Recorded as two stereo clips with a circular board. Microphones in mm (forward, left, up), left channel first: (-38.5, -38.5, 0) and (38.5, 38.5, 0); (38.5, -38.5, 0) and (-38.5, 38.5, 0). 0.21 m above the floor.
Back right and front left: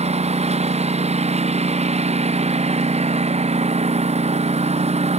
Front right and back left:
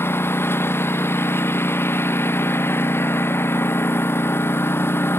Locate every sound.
0.0 s a lawn mower: 25° left